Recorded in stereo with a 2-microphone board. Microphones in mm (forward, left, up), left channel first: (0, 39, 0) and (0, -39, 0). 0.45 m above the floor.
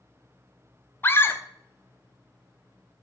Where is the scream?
30° left (ahead or behind), 1.2 m.